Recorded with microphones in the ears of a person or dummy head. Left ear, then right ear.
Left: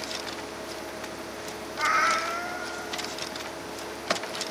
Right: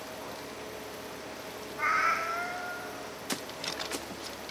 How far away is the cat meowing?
About 1.4 m.